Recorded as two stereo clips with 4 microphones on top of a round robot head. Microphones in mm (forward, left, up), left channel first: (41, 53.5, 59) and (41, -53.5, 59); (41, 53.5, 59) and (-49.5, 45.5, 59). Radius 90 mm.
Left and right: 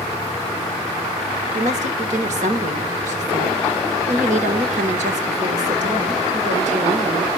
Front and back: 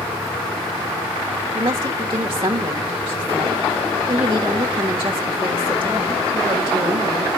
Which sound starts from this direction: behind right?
A woman speaking, at 1.5 s.